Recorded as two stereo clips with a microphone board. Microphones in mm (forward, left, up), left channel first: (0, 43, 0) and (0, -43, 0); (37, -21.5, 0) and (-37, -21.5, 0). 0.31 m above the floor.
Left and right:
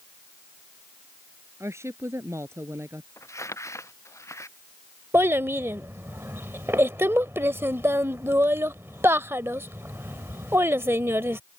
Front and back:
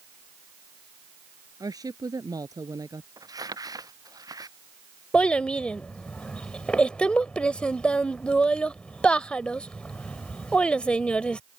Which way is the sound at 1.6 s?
150° right.